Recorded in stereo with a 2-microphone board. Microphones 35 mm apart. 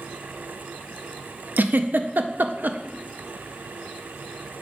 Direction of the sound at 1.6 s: 60° right (ahead or behind).